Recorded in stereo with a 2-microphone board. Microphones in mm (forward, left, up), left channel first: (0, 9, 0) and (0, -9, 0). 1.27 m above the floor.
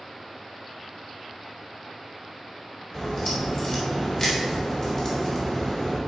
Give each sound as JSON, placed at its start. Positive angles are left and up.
{"t": 2.9, "sound": "a crack", "side_deg": 30, "distance_m": 2.5}